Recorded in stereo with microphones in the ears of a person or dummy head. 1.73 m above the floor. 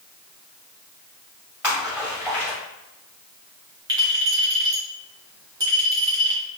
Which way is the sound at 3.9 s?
15° right (ahead or behind).